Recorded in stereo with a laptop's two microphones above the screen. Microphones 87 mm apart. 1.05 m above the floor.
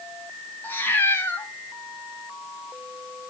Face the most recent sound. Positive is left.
turn(degrees=25)  # may be behind; listen again after turning